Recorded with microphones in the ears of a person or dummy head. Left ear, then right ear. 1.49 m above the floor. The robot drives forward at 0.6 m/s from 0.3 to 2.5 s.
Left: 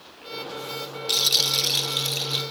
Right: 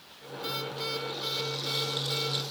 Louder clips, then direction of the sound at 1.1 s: Left 12 dB; 50° left (ahead or behind).